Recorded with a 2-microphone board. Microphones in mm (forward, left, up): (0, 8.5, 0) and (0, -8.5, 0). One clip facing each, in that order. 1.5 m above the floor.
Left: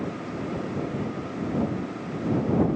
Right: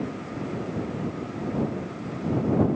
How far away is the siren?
I don't hear a siren.